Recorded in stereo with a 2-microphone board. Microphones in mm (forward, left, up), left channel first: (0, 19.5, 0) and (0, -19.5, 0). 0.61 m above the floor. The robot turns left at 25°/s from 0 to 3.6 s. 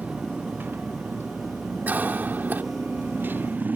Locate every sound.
0.0 s a motorcycle: 45° right (ahead or behind); by 3.8 s 50° right (ahead or behind)
1.9 s a cough: 55° right (ahead or behind); by 2.6 s 60° right (ahead or behind)